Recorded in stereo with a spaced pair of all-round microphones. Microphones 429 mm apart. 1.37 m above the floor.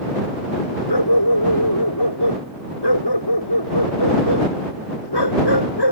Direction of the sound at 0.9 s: 65° left (ahead or behind).